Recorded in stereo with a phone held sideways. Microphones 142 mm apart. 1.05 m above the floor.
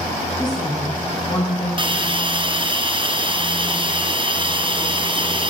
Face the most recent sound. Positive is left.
turn(degrees=-35)  # may be behind; listen again after turning